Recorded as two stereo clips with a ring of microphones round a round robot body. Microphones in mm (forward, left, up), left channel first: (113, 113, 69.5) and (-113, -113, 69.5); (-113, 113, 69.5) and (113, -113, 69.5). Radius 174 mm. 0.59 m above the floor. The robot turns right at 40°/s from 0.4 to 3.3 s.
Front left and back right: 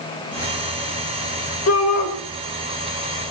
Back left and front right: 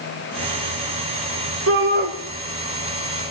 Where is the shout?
Straight ahead, 2.5 m; by 2.1 s 20° left, 2.5 m.